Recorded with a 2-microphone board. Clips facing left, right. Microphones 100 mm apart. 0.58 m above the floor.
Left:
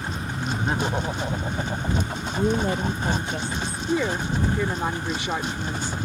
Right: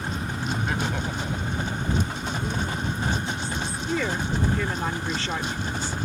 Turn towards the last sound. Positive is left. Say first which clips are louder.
# left 3 dB
turn(degrees=15)  # may be behind; listen again after turning